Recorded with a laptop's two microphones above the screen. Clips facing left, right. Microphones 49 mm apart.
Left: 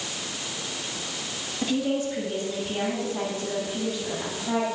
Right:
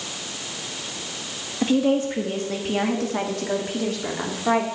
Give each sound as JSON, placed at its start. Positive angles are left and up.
{"t": 1.6, "sound": "a woman speaking", "side_deg": -35, "distance_m": 1.0}